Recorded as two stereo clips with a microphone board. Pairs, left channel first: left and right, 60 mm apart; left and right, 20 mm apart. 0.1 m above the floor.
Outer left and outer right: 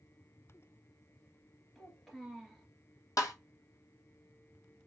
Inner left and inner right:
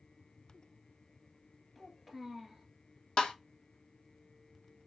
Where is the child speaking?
Centre (ahead or behind), 1.4 m.